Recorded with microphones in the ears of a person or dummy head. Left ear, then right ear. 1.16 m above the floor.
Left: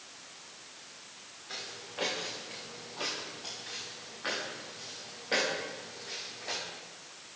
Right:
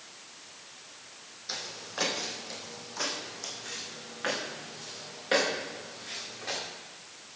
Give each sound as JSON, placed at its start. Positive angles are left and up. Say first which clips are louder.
{"t": 1.5, "sound": "footsteps", "louder": "right 4 dB", "side_deg": -65, "distance_m": 3.0}